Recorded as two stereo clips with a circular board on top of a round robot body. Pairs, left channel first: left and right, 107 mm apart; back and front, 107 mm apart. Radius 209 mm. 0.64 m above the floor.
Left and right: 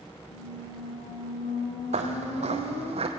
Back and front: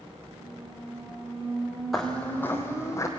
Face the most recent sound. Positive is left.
turn(degrees=-120)